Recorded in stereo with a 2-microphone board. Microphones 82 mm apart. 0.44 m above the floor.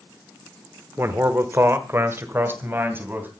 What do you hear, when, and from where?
1.0 s a man speaking: 30° right (ahead or behind), 1.0 m; by 3.3 s 25° right (ahead or behind), 3 m